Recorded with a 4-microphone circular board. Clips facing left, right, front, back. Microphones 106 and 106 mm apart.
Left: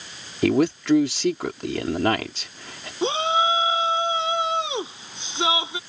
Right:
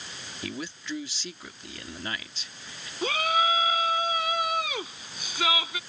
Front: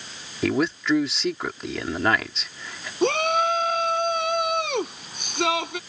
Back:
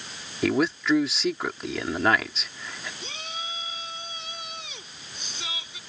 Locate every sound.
0.4 s a man speaking: 90° left
3.0 s a shout: 25° left